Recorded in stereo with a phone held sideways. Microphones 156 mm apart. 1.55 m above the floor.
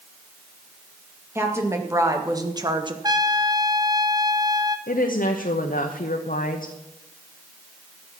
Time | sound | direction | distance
1.4 | a woman speaking | 15° right (ahead or behind) | 2 m
3.0 | a trumpet | 25° right (ahead or behind) | 0.9 m
4.9 | a woman speaking | 60° left (ahead or behind) | 0.9 m